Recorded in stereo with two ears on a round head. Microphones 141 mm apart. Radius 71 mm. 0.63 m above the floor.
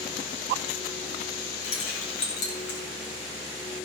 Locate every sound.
1.6 s keys jangling: 70° left (ahead or behind), 3 m; by 2.8 s 80° left, 2.5 m